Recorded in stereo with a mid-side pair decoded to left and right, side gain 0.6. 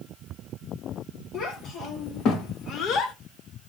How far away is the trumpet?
I don't hear a trumpet.